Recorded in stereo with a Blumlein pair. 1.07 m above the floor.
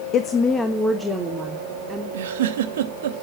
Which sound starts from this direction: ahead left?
A woman speaking, at 0.1 s.